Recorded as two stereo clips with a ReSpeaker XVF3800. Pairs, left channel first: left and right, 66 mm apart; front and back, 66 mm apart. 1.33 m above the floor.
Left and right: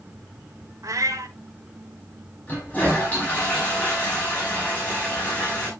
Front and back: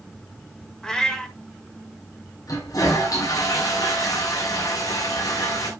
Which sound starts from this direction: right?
A cat meowing, at 0.8 s.